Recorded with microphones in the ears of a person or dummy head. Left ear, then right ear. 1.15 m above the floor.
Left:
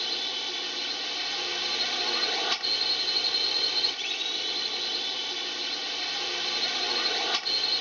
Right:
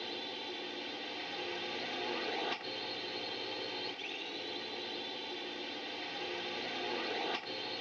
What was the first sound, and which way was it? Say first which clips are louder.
A drone: left 11 dB; 55° left (ahead or behind).